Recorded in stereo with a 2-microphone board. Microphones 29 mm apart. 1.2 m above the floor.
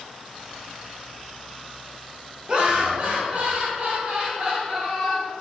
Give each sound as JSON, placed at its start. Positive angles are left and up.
{"t": 2.5, "sound": "laughter", "side_deg": -35, "distance_m": 0.9}